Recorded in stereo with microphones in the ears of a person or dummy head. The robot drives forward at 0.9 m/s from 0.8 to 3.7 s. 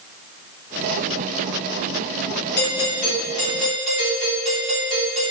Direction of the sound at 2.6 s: 50° left (ahead or behind).